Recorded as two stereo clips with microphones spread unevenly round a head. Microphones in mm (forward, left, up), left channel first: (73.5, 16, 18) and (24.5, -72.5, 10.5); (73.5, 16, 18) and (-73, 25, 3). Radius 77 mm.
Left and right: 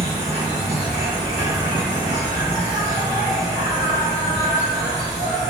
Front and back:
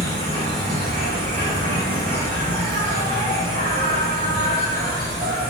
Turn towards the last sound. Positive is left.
turn(degrees=-125)